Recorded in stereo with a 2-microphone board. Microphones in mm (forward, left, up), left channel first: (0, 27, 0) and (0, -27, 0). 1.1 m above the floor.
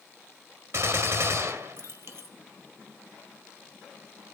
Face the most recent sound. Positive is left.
turn(degrees=-55)  # may be behind; listen again after turning